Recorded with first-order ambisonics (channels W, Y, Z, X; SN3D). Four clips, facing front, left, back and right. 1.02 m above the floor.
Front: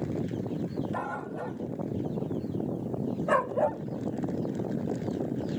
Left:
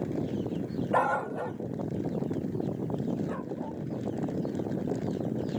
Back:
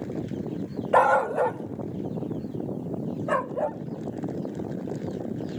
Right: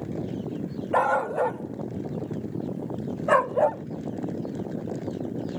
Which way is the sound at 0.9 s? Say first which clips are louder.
Right 5 dB, back 14 dB; 170° right.